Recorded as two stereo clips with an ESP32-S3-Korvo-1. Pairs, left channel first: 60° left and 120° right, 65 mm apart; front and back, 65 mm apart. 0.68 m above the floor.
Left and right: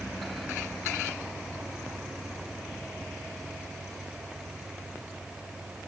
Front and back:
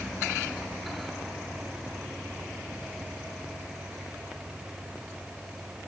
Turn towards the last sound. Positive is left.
No sound to turn to.